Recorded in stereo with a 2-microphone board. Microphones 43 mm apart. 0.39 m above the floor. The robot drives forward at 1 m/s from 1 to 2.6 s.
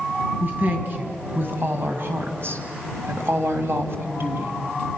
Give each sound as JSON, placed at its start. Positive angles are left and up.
{"t": 0.4, "sound": "a woman speaking", "side_deg": -45, "distance_m": 3.0}